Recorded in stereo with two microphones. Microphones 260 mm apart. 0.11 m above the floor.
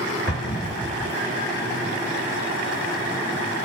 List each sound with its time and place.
0.3 s an explosion: 60° left (ahead or behind), 1.7 m